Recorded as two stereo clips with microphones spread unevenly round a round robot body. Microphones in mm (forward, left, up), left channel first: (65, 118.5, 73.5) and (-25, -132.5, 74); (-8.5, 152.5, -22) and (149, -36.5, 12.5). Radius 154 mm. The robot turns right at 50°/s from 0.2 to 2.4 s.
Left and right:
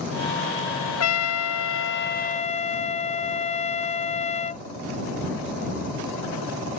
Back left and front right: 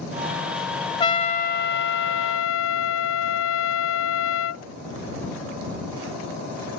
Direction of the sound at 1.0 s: 65° left.